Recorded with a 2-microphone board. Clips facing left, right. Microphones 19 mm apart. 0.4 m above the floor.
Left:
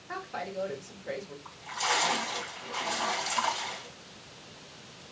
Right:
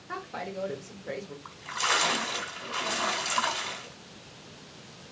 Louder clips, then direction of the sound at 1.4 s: Right 2 dB; 35° right (ahead or behind).